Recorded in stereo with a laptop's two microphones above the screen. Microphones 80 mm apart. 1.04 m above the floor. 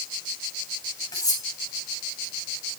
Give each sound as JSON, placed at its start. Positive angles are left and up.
{"t": 1.1, "sound": "cutlery clinking", "side_deg": 45, "distance_m": 3.5}